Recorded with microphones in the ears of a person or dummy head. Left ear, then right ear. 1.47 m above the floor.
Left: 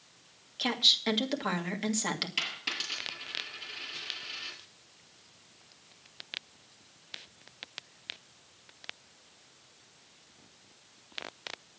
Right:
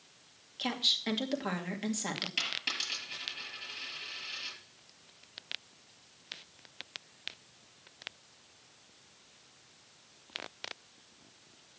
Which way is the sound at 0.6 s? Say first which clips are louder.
Left 5 dB; 15° left (ahead or behind).